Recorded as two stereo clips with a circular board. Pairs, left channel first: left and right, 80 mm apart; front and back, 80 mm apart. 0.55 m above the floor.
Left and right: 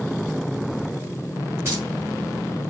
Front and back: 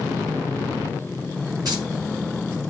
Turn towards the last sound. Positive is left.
turn(degrees=-145)